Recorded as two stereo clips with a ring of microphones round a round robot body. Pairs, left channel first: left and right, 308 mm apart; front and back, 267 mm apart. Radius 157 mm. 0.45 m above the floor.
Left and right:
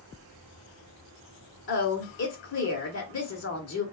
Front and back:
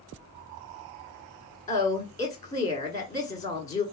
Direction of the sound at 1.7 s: 65° left.